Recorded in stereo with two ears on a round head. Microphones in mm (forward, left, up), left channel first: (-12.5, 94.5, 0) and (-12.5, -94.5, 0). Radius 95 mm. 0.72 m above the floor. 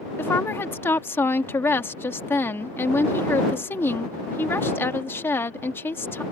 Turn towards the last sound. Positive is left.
turn(degrees=10)  # may be behind; listen again after turning